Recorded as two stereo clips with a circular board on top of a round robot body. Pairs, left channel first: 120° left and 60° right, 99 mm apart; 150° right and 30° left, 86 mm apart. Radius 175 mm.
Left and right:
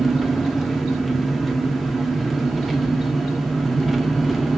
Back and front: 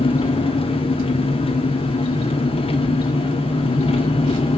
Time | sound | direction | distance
0.0 | an engine running | 150° right | 1.5 m